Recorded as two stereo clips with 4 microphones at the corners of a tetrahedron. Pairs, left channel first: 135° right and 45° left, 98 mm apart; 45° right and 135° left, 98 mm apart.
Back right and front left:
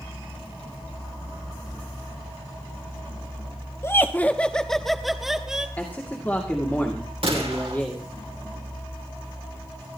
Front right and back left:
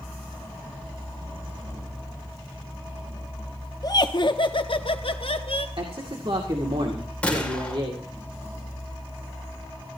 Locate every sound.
3.8 s laughter: 80° right, 0.8 m; by 5.7 s 40° right, 1.7 m
5.8 s a man speaking: 155° left, 2 m
7.2 s a gunshot: 30° left, 2.5 m